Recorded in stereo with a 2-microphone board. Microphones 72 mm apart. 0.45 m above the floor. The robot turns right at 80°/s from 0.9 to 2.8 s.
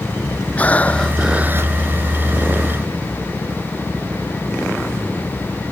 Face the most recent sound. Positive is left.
turn(degrees=-50)